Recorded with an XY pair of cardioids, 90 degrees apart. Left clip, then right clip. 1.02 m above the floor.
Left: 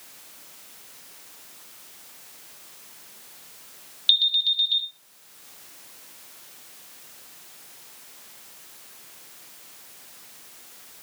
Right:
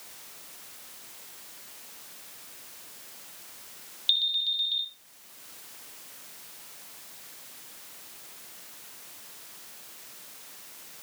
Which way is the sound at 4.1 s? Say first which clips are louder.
Left 6 dB; 45° left.